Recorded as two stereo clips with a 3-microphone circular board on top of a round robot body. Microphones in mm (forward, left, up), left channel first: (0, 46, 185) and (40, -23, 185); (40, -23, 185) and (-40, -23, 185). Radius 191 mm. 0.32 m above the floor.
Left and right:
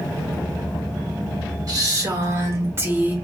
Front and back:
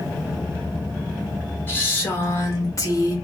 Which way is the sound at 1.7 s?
50° right.